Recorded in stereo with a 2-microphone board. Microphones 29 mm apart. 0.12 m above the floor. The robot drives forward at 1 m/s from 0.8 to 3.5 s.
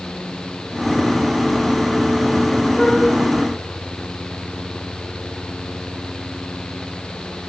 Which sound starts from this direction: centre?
A flute, at 2.8 s.